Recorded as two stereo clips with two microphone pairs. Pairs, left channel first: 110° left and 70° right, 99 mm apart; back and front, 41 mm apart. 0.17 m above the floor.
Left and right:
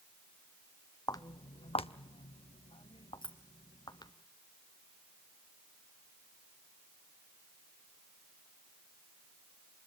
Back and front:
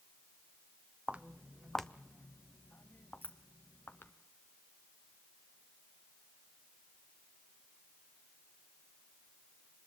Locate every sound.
1.1 s footsteps: 65° left, 0.6 m; by 4.1 s 155° left, 1.6 m
3.2 s keys jangling: 140° left, 3 m